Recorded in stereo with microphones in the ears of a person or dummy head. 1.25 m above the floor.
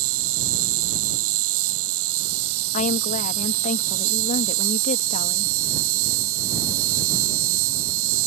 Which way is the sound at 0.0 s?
85° right.